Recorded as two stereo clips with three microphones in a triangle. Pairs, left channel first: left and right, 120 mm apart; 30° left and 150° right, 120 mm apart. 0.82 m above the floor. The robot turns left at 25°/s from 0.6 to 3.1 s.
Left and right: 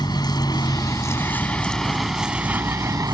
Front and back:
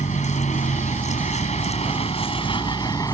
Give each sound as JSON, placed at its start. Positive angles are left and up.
{"t": 0.0, "sound": "a vehicle", "azimuth_deg": 35}